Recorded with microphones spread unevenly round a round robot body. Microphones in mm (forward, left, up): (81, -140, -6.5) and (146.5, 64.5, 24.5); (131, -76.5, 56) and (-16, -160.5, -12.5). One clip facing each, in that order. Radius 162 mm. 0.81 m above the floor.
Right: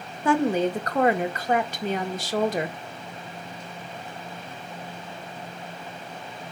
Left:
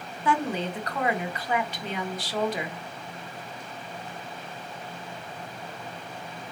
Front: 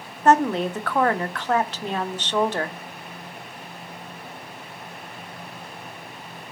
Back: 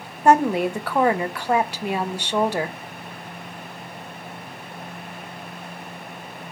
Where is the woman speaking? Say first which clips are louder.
Right 6 dB, back 1 dB; 95° right, 0.6 m.